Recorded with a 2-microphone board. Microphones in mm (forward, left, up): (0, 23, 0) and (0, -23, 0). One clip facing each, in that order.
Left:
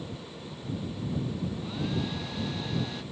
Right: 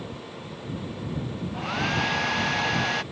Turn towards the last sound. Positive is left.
turn(degrees=-70)  # may be behind; listen again after turning